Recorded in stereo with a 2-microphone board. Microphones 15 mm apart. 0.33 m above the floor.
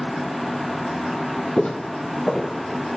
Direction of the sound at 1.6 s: 65° left (ahead or behind).